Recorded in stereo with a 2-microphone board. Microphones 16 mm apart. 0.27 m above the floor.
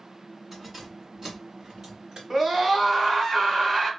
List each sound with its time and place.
0.5 s keys jangling: 15° right (ahead or behind), 2.0 m; by 2.2 s 50° right (ahead or behind), 2.5 m
2.3 s a scream: 35° right (ahead or behind), 1.5 m